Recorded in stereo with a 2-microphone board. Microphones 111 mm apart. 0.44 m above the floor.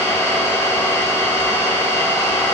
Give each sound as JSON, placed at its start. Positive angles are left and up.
{"t": 0.0, "sound": "an engine running", "side_deg": 30, "distance_m": 1.8}